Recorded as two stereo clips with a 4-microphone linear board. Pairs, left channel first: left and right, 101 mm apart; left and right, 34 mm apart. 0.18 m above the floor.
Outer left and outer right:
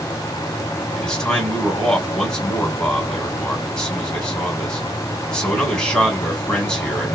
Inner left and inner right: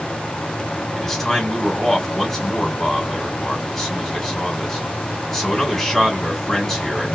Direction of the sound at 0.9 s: 10° left (ahead or behind).